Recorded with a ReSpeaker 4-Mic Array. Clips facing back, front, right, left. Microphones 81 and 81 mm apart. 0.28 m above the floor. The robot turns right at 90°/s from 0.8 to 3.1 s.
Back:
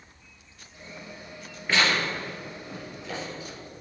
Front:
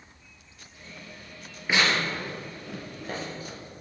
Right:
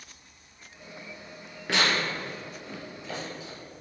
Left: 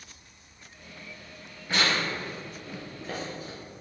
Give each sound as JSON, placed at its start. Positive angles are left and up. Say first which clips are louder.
{"t": 1.7, "sound": "tearing paper", "louder": "even, right 1 dB", "azimuth_deg": -80, "distance_m": 3.5}